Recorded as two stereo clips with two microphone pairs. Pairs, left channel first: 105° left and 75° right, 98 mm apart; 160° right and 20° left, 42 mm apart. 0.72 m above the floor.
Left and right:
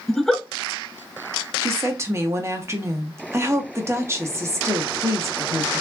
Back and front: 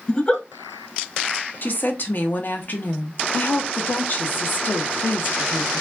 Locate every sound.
0.1 s a giggle: 175° right, 0.5 m
1.6 s a woman speaking: 130° right, 0.8 m